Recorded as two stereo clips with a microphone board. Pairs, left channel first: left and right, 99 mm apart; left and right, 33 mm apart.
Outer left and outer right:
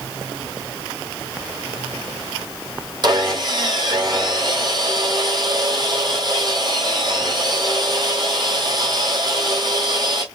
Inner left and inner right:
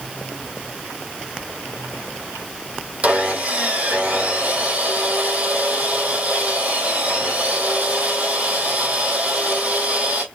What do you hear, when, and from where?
3.0 s sawing: 45° right (ahead or behind), 1.4 m